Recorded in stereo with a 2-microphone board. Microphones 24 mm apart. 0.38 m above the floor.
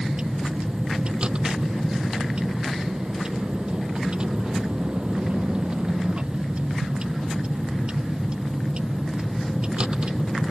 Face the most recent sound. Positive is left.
turn(degrees=-45)  # may be behind; listen again after turning